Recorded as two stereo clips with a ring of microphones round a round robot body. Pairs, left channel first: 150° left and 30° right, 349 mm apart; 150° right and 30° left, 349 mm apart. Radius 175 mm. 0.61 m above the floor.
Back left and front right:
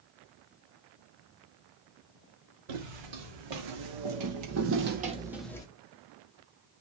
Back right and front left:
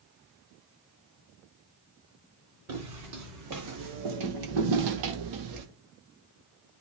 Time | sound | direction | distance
2.7 | footsteps | 20° right | 2.5 m